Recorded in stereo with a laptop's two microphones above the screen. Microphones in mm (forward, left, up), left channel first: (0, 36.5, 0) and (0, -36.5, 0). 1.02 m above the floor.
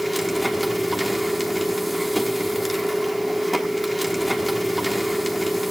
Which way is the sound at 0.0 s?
Centre (ahead or behind).